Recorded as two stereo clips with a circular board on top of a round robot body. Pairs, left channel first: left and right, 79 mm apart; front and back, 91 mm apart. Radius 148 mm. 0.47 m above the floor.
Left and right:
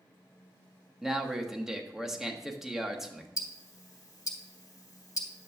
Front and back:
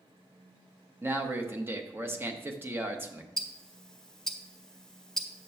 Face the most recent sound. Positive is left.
turn(degrees=80)